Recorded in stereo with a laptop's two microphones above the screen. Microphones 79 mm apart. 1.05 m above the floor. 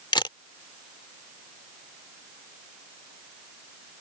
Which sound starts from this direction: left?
A camera shutter, at 0.1 s.